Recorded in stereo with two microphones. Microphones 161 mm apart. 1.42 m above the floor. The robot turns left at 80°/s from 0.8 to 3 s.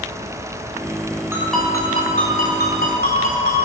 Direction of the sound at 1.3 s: 165° right.